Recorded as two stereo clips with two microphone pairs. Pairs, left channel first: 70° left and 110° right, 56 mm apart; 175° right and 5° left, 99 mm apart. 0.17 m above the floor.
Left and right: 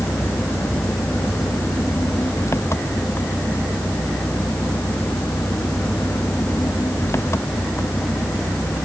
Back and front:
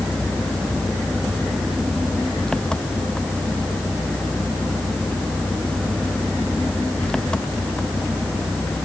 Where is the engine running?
105° left.